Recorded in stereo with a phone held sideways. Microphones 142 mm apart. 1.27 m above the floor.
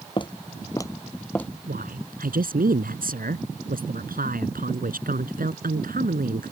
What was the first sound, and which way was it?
Footsteps, 35° left (ahead or behind).